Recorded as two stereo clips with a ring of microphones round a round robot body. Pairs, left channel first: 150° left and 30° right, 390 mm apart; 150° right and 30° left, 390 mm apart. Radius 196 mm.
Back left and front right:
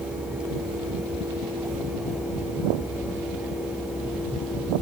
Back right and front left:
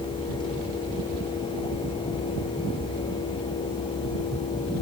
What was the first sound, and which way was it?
Only background noise.